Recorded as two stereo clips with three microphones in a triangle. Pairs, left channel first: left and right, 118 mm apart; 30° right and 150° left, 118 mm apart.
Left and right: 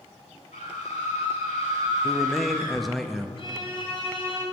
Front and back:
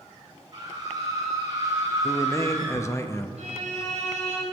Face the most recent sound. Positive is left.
turn(degrees=135)